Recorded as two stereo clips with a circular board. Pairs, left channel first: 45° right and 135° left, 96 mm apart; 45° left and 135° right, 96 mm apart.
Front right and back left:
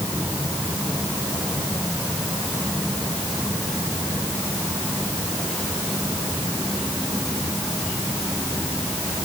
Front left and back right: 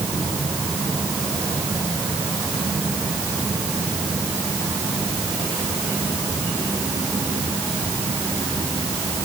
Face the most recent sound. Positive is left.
No sound to turn to.